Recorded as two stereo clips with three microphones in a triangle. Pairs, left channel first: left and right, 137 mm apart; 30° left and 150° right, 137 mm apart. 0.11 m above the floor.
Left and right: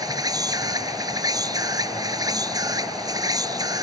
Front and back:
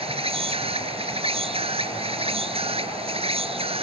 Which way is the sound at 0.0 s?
140° right.